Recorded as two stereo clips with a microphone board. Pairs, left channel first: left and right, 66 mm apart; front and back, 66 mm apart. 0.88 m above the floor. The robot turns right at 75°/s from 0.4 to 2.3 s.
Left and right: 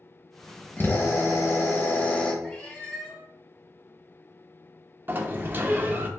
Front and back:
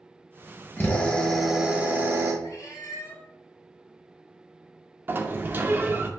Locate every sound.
0.8 s a drill: 45° left, 1.0 m; by 2.3 s 160° left, 1.0 m
2.4 s a cat meowing: 15° left, 1.5 m
5.1 s a sliding door: 135° right, 0.5 m